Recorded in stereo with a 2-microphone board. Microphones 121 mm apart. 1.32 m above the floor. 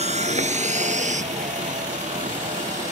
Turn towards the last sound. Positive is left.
turn(degrees=-85)